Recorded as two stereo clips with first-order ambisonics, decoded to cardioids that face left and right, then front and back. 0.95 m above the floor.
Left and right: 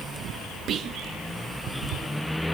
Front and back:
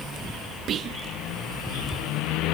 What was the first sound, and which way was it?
Whispering, 135° right.